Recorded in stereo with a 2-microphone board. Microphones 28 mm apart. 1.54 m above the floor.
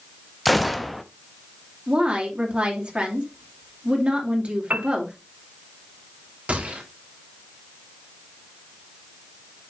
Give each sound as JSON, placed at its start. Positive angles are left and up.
{"t": 0.5, "sound": "a gunshot", "side_deg": 0, "distance_m": 0.8}
{"t": 1.9, "sound": "a woman speaking", "side_deg": -40, "distance_m": 2.5}
{"t": 4.7, "sound": "a piano", "side_deg": -50, "distance_m": 1.0}
{"t": 6.5, "sound": "a gunshot", "side_deg": -50, "distance_m": 3.0}